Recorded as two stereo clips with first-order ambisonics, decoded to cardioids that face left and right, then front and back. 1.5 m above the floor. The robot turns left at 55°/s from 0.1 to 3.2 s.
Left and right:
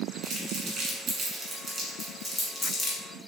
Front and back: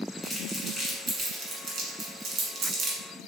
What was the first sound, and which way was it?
Crumpling, 80° right.